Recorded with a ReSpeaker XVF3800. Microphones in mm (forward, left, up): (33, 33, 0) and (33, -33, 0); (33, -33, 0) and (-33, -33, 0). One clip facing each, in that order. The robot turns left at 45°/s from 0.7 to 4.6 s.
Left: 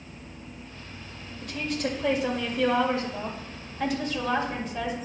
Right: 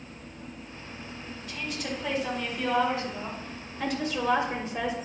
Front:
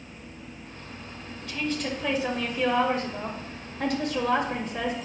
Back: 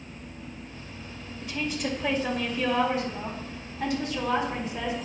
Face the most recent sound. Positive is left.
turn(degrees=-30)